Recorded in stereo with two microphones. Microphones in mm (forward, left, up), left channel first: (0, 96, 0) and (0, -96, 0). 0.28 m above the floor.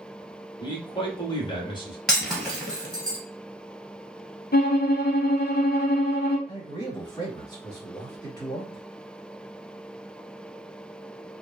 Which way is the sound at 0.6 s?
25° left (ahead or behind).